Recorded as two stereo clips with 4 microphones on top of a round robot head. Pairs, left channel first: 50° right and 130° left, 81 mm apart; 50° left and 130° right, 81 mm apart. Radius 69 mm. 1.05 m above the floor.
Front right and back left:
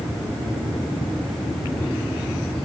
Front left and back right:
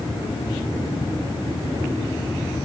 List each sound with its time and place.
Only background noise.